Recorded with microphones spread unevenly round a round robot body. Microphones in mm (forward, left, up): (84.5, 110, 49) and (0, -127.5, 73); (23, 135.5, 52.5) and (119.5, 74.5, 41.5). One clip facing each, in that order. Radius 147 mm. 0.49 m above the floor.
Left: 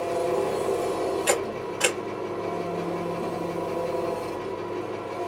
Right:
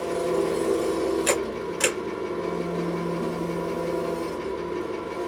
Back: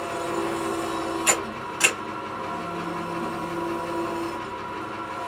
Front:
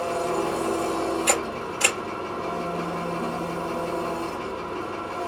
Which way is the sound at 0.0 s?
50° right.